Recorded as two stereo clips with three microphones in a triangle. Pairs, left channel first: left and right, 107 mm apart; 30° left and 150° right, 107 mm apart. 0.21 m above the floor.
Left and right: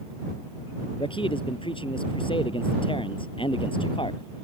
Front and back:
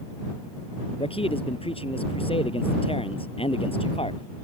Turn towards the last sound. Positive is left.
turn(degrees=55)